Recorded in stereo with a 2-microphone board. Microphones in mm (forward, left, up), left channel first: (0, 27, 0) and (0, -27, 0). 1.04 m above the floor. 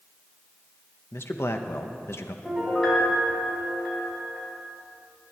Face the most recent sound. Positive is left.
turn(degrees=10)  # may be behind; listen again after turning